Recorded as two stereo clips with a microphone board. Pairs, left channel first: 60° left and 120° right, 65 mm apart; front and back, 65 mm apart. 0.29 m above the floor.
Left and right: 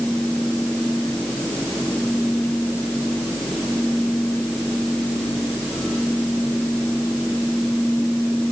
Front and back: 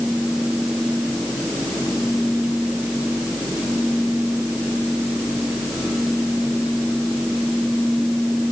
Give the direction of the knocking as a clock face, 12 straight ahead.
I don't hear knocking.